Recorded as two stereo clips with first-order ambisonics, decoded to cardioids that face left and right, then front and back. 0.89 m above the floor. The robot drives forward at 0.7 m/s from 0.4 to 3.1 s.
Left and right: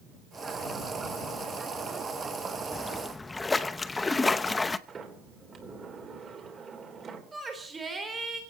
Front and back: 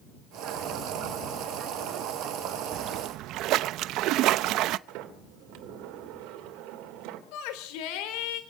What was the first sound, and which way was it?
A splash, 155° left.